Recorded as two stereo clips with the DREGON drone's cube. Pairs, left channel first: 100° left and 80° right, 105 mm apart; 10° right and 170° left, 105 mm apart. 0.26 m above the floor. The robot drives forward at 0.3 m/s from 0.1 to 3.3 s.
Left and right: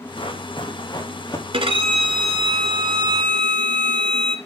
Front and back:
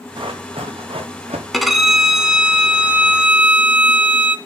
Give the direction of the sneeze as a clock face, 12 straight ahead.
No sneeze in this recording.